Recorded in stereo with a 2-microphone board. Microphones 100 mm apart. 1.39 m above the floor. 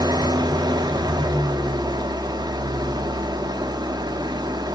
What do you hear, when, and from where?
0.0 s an engine running: 45° right (ahead or behind), 1.1 m